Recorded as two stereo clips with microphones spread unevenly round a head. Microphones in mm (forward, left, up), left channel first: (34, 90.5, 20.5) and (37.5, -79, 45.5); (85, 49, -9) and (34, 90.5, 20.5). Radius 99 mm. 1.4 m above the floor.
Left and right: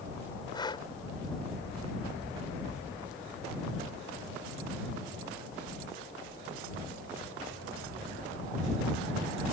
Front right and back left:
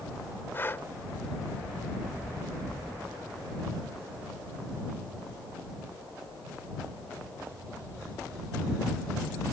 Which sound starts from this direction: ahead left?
Breathing, at 0.5 s.